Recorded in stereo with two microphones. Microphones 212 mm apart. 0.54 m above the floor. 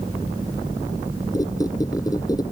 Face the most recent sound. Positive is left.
turn(degrees=15)  # may be behind; listen again after turning